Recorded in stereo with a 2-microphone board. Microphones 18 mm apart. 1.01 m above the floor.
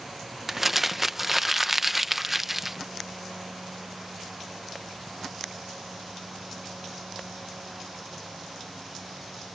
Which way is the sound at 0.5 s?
15° right (ahead or behind).